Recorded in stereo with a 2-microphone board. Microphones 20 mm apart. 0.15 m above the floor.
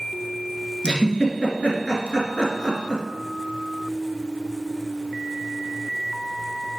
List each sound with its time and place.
0.8 s a giggle: 55° left (ahead or behind), 1.5 m